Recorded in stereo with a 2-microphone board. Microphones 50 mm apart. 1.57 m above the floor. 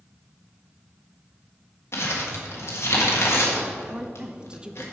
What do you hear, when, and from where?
1.9 s crumpling: 65° left (ahead or behind), 1.6 m
3.9 s a woman speaking: 20° right (ahead or behind), 0.6 m